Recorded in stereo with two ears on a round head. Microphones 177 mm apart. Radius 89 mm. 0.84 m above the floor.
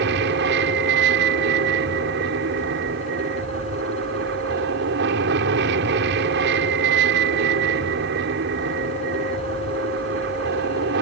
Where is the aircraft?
60° right (ahead or behind).